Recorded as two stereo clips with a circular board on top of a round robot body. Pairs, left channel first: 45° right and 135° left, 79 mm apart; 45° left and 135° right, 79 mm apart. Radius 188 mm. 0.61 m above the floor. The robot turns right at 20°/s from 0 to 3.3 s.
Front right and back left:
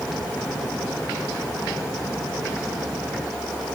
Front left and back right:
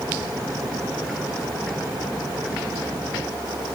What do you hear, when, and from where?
Only background noise.